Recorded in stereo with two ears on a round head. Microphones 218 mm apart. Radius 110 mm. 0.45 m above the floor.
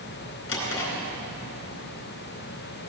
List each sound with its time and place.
0.5 s a drawer: 60° left (ahead or behind), 3.5 m